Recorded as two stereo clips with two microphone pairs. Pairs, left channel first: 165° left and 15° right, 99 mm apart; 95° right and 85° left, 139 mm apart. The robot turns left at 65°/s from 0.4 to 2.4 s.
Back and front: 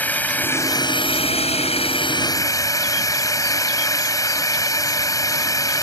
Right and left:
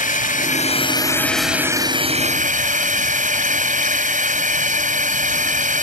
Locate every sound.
0.0 s a drone: 120° right; by 5.8 s 110° left